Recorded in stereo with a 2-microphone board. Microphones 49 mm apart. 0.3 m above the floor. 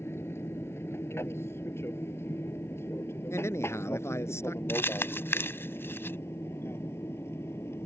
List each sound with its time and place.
0.0 s an aircraft: 60° left (ahead or behind)
3.3 s a man speaking: 70° left (ahead or behind)
4.7 s crumpling: 55° left (ahead or behind)